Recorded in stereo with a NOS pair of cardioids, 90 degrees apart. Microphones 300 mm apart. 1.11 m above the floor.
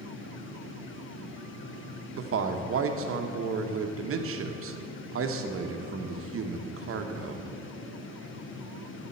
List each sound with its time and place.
0.0 s a fan: 45° left, 1.0 m
2.1 s a man speaking: 45° right, 0.9 m